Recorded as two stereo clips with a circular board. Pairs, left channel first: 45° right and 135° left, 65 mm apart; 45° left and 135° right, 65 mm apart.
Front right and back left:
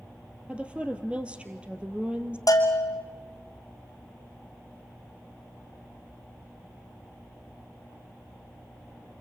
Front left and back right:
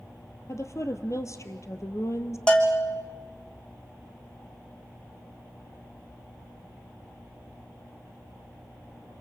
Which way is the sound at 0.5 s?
65° left.